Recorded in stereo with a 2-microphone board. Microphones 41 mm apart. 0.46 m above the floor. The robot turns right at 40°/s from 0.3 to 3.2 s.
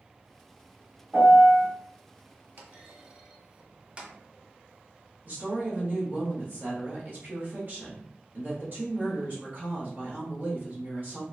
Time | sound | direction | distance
1.1 | a piano | 15° right (ahead or behind) | 1.3 m
2.6 | a clunk | 55° right (ahead or behind) | 0.7 m
5.2 | a woman speaking | 40° right (ahead or behind) | 1.1 m